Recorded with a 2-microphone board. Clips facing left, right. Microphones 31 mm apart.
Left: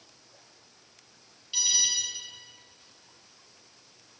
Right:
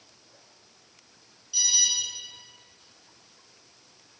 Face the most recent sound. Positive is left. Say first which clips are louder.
# right 2 dB
turn(degrees=40)  # may be behind; listen again after turning